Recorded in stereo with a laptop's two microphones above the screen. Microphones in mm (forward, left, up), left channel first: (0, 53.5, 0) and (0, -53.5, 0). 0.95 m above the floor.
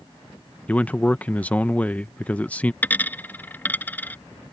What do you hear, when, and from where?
0.7 s a man speaking: 15° left (ahead or behind)
2.8 s a dropped coin: 15° left (ahead or behind)